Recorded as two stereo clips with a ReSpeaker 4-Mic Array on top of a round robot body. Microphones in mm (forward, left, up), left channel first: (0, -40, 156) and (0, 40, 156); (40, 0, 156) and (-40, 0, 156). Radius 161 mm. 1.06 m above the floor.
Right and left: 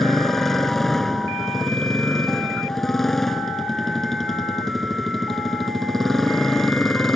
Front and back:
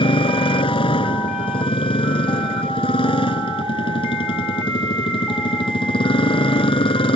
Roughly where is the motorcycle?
Ahead.